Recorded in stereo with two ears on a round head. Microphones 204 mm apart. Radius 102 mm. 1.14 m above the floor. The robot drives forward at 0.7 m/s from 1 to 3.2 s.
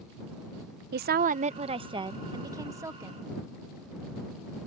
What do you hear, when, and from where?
0.9 s a woman speaking: 45° right (ahead or behind); by 3.3 s 10° right (ahead or behind)